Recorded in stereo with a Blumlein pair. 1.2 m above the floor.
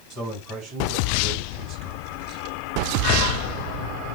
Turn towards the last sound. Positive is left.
turn(degrees=-10)